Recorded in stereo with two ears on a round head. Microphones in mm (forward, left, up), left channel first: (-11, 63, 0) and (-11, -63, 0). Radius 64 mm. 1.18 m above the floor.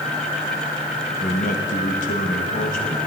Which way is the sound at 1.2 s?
60° left (ahead or behind).